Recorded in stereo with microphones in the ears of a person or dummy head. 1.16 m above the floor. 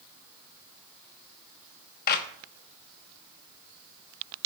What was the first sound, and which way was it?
A clap, 50° left (ahead or behind).